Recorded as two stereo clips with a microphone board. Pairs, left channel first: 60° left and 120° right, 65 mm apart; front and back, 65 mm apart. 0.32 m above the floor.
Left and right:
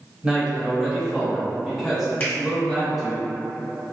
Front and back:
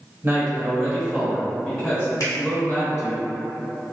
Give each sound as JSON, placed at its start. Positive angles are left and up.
{"t": 0.2, "sound": "a man speaking", "azimuth_deg": 180, "distance_m": 1.0}
{"t": 2.2, "sound": "a finger snap", "azimuth_deg": 10, "distance_m": 1.3}